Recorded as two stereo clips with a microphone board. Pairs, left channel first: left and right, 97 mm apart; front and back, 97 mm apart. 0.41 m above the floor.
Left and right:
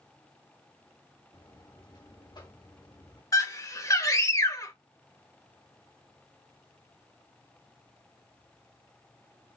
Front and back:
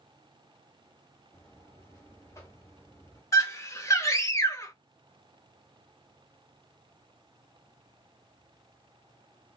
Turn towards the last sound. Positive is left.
turn(degrees=45)